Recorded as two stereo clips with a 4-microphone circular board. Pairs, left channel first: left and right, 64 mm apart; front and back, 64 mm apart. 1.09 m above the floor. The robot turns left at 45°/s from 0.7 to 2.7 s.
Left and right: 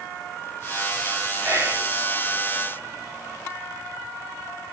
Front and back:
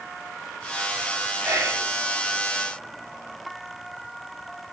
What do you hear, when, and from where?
1.4 s whispering: 135° right, 3.5 m; by 1.9 s 155° right, 3.5 m